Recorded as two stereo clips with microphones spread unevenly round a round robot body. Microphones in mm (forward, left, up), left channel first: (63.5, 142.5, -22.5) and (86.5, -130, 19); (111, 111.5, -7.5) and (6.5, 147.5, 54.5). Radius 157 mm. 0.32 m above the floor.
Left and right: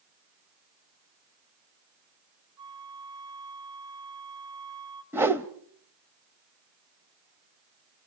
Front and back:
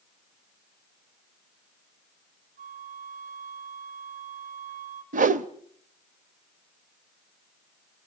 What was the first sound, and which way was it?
A flute, 165° right.